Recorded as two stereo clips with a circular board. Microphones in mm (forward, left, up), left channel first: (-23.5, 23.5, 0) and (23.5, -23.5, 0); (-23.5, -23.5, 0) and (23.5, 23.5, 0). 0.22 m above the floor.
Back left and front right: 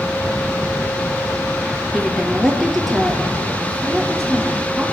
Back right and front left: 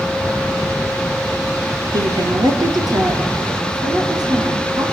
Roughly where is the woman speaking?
Ahead left.